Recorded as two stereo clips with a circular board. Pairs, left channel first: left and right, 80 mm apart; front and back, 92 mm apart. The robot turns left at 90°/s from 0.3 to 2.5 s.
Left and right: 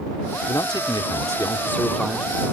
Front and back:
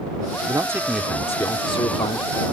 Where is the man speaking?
135° left; by 2.3 s 25° right.